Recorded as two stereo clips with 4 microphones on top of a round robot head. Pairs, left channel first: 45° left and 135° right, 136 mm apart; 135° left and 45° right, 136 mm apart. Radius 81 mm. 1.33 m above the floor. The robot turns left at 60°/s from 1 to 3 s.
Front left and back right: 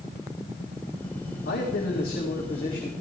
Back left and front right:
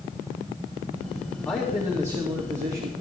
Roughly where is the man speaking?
Ahead left.